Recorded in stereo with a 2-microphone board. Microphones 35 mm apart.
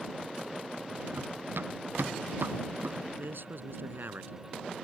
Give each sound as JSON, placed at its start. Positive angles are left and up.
{"t": 1.1, "sound": "running footsteps", "side_deg": -80}
{"t": 3.2, "sound": "a man speaking", "side_deg": -80}